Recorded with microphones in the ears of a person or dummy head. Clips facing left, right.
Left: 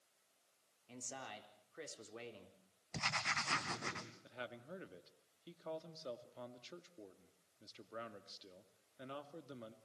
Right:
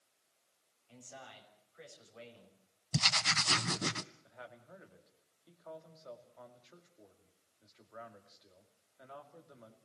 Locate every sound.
0.9 s a man speaking: 55° left (ahead or behind), 4 m
2.9 s writing: 45° right (ahead or behind), 1.6 m
4.2 s a man speaking: 40° left (ahead or behind), 2 m